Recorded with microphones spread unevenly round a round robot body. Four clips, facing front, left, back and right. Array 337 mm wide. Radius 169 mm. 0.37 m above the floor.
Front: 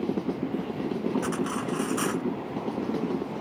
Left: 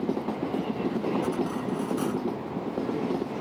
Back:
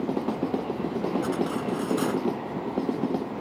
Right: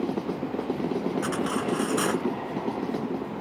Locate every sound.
1.2 s cutlery clinking: 75° right